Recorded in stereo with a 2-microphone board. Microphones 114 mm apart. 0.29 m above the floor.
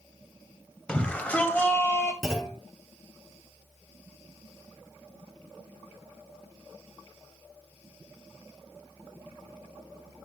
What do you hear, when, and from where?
0.9 s a shout: 10° left (ahead or behind), 1.7 m; by 2.1 s 25° left (ahead or behind), 1.6 m
2.2 s a clunk: 5° right (ahead or behind), 4 m